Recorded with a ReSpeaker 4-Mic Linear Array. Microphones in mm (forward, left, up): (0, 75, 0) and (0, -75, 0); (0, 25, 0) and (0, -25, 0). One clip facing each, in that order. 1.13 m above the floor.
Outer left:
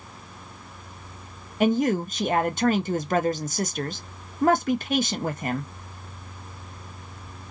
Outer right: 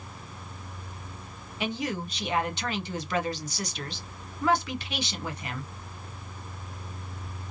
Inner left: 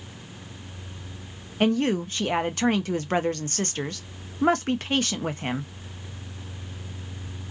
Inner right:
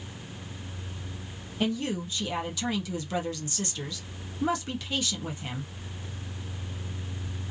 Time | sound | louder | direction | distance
1.6 | a woman speaking | outer left 10 dB, inner left 7 dB | 45° left (ahead or behind) | 0.5 m